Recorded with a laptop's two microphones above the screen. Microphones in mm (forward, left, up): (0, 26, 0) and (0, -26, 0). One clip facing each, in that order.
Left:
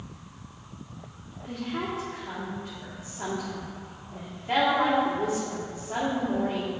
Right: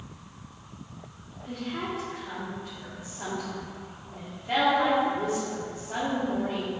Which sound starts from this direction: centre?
A woman speaking, at 1.4 s.